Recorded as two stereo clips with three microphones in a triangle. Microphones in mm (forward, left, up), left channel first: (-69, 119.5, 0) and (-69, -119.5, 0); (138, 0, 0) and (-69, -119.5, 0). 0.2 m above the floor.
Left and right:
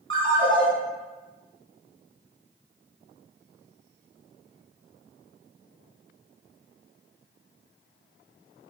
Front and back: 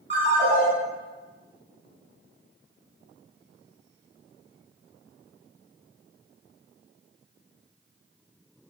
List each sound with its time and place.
0.1 s a ringtone: 155° left, 1.9 m